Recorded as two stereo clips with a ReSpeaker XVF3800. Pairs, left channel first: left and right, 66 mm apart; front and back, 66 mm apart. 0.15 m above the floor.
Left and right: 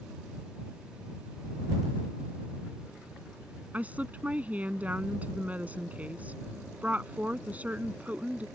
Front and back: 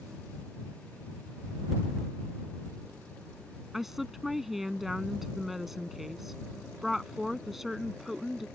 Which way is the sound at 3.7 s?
100° right.